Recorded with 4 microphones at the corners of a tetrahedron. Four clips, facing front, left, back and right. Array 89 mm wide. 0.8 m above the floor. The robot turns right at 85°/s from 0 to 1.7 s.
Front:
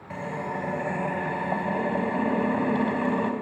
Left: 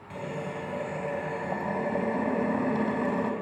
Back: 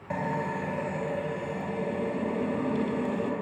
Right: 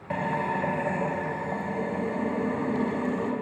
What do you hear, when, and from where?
0.1 s a drill: 115° right, 4 m; by 3.3 s 20° left, 4 m